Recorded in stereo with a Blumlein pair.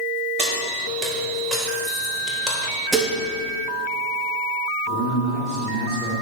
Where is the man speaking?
40° right, 3 m.